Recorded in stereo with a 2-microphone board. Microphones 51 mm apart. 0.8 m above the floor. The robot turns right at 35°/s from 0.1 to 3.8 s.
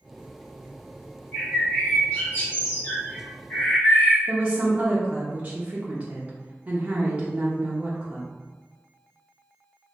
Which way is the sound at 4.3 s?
25° right (ahead or behind).